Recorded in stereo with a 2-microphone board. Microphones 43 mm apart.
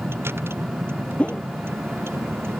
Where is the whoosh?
30° left (ahead or behind).